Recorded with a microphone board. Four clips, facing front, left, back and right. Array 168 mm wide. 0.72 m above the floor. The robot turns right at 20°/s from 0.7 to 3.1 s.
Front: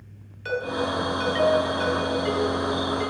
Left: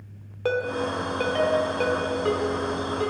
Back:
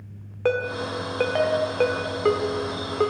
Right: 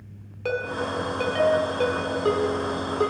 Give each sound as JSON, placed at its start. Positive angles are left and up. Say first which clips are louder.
{"t": 0.5, "sound": "a ringtone", "louder": "left 2 dB, back 2 dB", "azimuth_deg": 165, "distance_m": 1.1}